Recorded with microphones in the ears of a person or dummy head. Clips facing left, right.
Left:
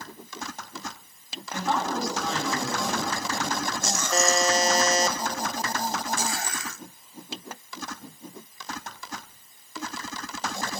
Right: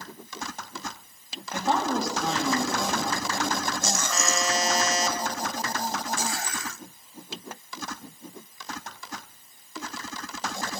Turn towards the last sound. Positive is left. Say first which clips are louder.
# left 7 dB
turn(degrees=35)  # may be behind; listen again after turning